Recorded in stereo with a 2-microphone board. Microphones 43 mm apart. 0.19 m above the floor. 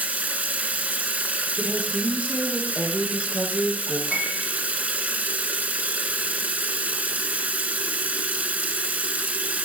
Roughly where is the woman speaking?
Right.